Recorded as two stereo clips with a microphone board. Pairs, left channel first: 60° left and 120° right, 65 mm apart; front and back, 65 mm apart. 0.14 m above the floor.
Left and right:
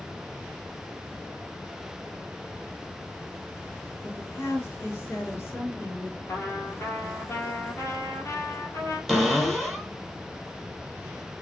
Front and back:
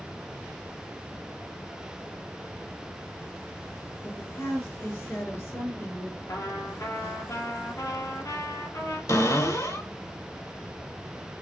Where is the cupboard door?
25° right, 1.2 m.